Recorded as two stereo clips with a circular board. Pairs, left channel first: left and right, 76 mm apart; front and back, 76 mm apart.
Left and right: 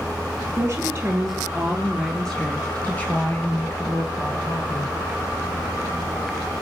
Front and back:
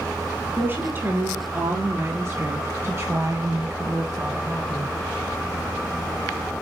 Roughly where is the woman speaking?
Behind right.